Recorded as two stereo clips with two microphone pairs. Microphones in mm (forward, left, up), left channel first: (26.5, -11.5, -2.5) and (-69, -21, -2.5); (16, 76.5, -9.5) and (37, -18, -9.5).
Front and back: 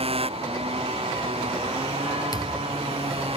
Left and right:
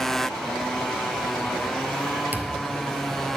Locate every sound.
0.0 s a motorcycle: 170° right
2.3 s a thud: 10° right